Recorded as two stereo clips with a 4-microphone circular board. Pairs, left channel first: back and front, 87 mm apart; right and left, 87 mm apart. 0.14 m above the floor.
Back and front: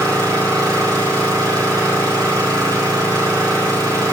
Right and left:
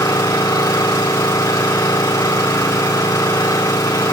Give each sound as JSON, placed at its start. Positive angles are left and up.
{"t": 0.0, "sound": "an engine running", "azimuth_deg": -40, "distance_m": 5.0}